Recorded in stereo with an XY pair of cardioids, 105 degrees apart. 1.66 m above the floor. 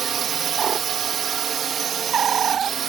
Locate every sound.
0.0 s a drone: 55° right